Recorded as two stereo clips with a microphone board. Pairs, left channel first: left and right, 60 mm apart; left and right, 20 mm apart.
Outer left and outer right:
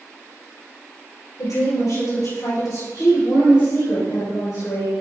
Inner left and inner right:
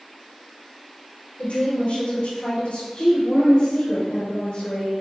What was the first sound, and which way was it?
A woman speaking, 75° left (ahead or behind).